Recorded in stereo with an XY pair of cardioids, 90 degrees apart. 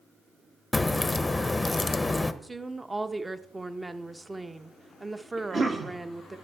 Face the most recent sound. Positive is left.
turn(degrees=-40)